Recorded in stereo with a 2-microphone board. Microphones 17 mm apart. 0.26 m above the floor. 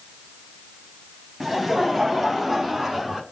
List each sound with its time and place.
1.4 s laughter: 20° right (ahead or behind), 2.0 m; by 3.2 s 30° right (ahead or behind), 3.5 m